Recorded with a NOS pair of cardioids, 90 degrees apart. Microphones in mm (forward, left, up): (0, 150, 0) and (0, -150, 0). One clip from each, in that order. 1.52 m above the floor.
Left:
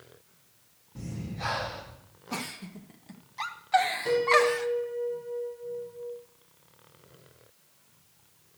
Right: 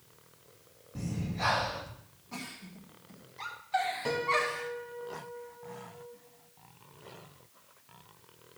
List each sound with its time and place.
0.9 s breathing: 35° right, 2.5 m
2.3 s a giggle: 55° left, 1.3 m
4.0 s a piano: 50° right, 5 m